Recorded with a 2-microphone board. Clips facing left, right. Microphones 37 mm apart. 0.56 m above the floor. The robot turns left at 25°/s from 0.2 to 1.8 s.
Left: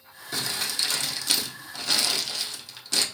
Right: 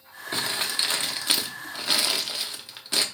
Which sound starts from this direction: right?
Crumpling, at 0.3 s.